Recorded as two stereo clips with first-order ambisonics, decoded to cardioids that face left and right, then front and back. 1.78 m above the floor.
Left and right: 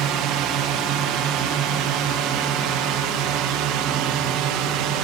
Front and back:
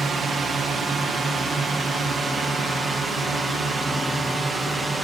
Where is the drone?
110° right; by 5.0 s 105° right.